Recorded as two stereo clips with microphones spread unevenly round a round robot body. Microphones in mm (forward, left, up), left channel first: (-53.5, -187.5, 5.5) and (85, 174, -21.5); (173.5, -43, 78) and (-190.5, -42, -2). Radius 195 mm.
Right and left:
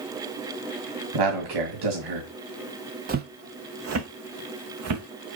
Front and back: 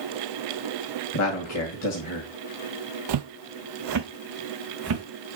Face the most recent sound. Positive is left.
turn(degrees=125)